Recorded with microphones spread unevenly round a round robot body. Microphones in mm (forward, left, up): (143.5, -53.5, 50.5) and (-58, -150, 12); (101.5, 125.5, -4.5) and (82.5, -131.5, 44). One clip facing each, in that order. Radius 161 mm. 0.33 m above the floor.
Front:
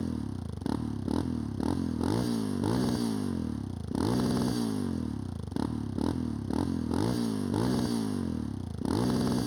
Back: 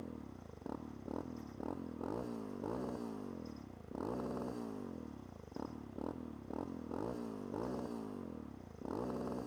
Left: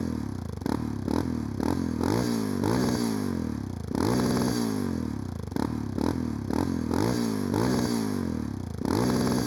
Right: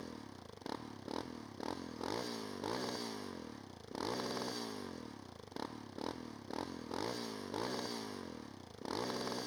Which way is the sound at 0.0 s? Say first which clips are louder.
Front 14 dB, left 18 dB; 70° left.